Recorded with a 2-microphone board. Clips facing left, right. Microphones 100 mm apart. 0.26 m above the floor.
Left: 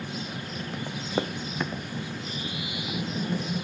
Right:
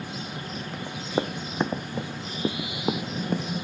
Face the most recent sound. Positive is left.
turn(degrees=-50)  # may be behind; listen again after turning